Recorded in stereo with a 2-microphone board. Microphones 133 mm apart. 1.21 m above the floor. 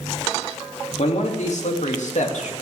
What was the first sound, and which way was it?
A man speaking, 65° left (ahead or behind).